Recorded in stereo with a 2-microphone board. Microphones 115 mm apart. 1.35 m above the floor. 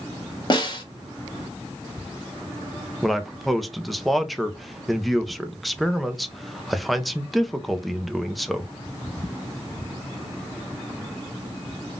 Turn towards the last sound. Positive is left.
turn(degrees=0)  # may be behind; listen again after turning